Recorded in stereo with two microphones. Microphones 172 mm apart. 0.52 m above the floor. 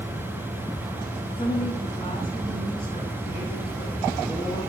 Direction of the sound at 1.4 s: 30° left (ahead or behind).